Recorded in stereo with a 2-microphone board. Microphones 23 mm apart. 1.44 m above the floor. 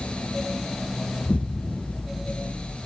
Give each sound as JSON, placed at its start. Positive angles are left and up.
{"t": 1.2, "sound": "an explosion", "side_deg": 40, "distance_m": 0.6}